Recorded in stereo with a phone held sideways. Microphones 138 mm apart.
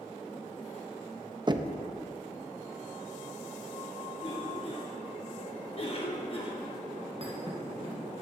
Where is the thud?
45° right (ahead or behind), 3 m.